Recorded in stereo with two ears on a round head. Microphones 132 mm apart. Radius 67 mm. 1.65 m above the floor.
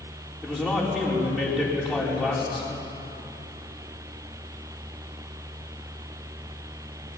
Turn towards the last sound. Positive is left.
turn(degrees=0)  # may be behind; listen again after turning